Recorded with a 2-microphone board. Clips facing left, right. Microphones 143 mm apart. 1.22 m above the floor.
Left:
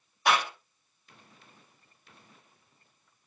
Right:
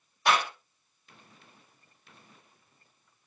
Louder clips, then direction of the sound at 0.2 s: Even; 10° left (ahead or behind).